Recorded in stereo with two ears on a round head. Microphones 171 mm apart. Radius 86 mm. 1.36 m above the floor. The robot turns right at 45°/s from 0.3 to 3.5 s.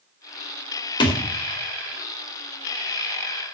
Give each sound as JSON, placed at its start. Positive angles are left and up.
{"t": 1.0, "sound": "a thud", "side_deg": 25, "distance_m": 2.0}